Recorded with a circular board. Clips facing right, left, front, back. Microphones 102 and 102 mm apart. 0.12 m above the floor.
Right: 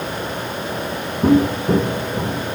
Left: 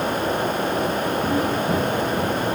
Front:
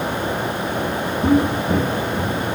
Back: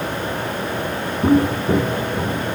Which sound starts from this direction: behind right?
Footsteps, at 1.2 s.